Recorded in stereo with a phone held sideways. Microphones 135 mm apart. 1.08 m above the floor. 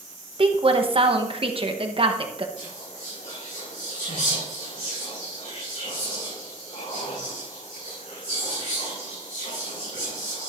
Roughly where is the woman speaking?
Right.